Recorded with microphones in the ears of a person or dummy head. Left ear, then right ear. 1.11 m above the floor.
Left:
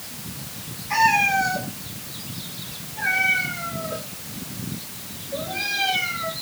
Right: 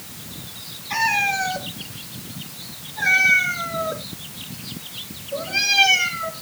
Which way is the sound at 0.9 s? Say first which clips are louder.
Left 2 dB; centre (ahead or behind).